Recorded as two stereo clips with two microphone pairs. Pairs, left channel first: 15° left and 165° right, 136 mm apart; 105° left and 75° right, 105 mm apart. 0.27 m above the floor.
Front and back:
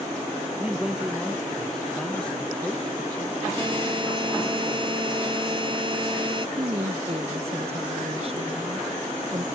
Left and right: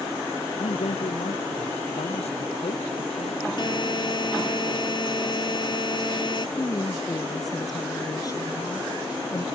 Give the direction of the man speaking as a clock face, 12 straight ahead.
8 o'clock.